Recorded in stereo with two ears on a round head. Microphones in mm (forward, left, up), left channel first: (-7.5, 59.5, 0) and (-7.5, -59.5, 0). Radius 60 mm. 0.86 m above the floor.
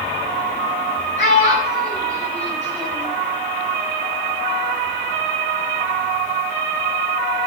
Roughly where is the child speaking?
Left.